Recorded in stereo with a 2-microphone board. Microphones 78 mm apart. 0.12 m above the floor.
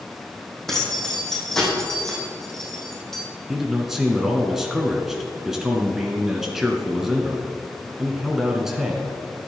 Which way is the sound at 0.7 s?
5° left (ahead or behind).